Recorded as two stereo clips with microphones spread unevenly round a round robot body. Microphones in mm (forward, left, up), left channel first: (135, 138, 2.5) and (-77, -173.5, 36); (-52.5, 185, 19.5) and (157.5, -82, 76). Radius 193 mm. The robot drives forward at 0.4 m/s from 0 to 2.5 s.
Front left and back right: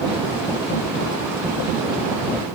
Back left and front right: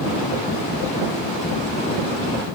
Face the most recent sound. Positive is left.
No sound to turn to.